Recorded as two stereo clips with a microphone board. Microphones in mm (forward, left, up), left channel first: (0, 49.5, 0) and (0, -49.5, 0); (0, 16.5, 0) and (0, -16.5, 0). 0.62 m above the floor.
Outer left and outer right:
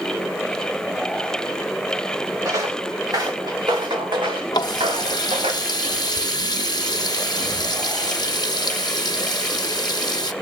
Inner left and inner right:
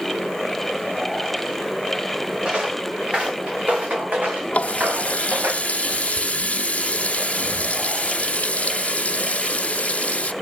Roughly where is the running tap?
Left.